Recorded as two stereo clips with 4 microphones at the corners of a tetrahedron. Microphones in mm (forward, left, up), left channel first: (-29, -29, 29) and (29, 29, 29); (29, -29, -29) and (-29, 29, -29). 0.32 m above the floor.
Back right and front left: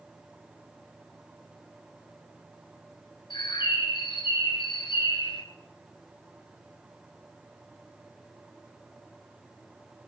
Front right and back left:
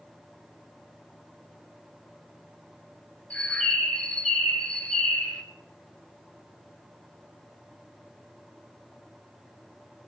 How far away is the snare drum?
I don't hear a snare drum.